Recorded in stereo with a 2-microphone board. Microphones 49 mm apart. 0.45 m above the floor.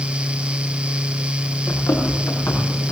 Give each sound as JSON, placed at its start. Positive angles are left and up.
{"t": 1.7, "sound": "running footsteps", "side_deg": 85, "distance_m": 6.0}